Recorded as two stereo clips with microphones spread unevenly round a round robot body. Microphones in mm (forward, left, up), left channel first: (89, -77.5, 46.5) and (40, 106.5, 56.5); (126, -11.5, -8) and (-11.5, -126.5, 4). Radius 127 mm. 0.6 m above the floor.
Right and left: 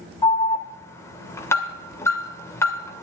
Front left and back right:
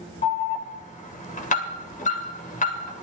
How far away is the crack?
No crack in this recording.